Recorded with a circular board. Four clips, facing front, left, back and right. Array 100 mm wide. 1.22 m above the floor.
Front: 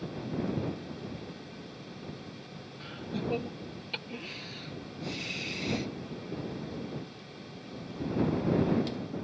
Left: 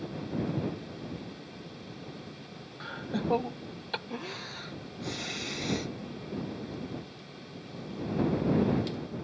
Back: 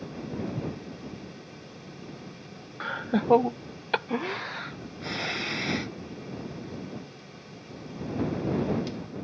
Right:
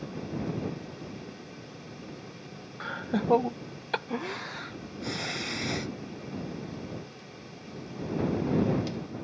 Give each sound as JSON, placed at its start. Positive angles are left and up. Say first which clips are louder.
{"t": 0.4, "sound": "footsteps", "louder": "left 2 dB, front 1 dB", "azimuth_deg": 110}
{"t": 2.8, "sound": "laughter", "louder": "right 3 dB, back 9 dB", "azimuth_deg": -165}